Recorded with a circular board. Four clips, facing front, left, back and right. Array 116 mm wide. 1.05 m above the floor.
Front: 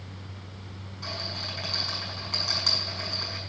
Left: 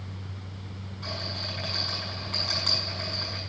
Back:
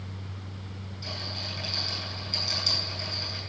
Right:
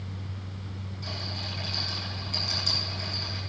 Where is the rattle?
35° left, 6.5 m.